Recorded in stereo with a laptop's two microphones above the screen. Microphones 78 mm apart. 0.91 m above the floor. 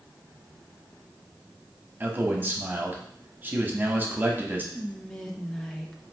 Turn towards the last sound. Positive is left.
turn(degrees=5)  # may be behind; listen again after turning